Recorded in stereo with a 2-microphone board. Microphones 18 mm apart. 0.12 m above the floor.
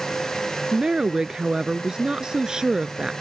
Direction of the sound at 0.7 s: 40° right (ahead or behind).